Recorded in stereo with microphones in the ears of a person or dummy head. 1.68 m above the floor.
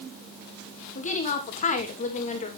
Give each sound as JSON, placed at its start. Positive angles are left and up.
{"t": 0.9, "sound": "a woman speaking", "side_deg": 40, "distance_m": 2.5}